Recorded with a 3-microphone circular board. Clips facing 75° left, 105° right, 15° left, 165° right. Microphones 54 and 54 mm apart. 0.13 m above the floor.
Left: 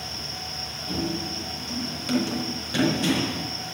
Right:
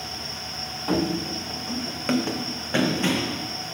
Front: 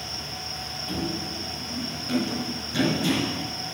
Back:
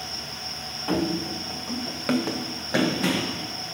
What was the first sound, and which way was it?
Running footsteps, 125° right.